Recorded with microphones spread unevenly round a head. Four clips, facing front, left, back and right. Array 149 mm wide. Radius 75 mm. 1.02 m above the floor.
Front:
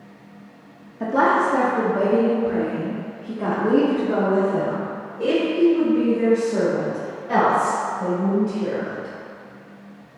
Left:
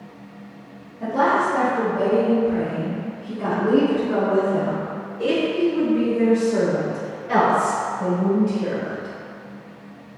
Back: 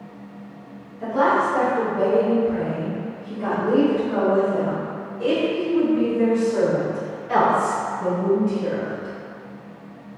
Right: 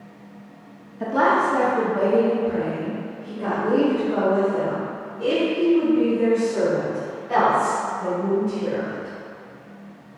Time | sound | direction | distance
1.0 | a woman speaking | 25° right | 1.5 m